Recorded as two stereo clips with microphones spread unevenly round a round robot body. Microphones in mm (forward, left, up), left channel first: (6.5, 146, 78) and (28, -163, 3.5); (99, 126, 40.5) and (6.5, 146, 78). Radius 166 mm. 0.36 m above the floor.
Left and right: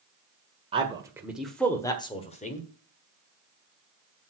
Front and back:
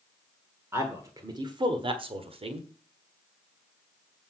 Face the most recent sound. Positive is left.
turn(degrees=165)